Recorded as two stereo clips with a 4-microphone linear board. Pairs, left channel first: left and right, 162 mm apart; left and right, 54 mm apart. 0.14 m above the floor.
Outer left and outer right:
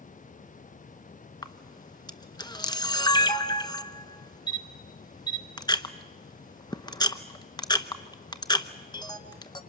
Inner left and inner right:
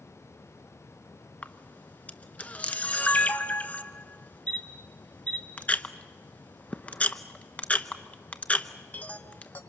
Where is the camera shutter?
25° left (ahead or behind), 0.8 m.